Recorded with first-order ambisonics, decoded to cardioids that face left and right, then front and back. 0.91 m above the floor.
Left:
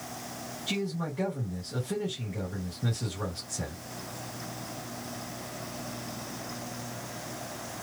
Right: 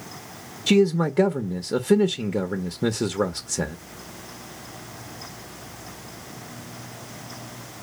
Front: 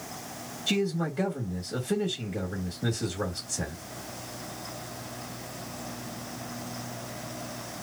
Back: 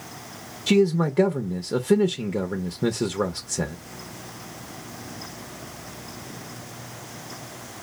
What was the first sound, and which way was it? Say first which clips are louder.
A man speaking: right 14 dB, back 8 dB; 125° right.